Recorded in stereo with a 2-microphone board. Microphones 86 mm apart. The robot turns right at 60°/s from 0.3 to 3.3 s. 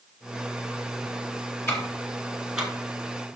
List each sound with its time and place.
1.7 s ticking: 30° left (ahead or behind), 2 m; by 2.7 s 15° right (ahead or behind), 2 m